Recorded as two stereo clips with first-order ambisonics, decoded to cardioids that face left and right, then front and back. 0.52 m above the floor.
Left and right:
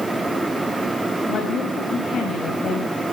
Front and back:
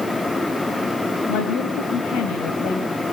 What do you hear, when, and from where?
1.3 s a woman speaking: 30° left, 4 m